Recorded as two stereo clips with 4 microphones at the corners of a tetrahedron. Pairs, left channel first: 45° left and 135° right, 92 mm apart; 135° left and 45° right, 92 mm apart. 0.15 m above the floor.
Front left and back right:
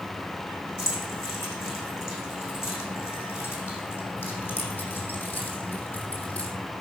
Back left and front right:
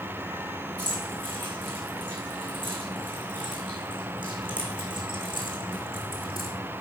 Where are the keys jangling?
10° right, 7.5 m; by 6.5 s 30° right, 4 m.